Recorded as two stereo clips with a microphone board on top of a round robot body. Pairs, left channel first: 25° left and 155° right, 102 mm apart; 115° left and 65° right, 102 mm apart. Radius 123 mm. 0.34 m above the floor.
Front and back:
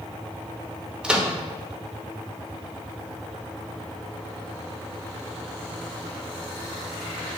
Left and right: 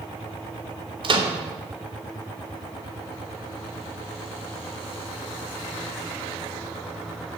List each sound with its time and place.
1.0 s a microwave: 80° right, 0.9 m